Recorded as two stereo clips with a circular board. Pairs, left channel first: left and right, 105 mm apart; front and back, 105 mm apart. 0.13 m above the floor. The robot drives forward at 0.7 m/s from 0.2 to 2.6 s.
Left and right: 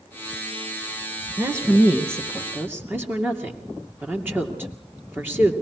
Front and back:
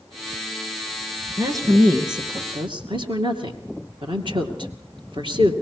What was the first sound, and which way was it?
A woman speaking, 140° right.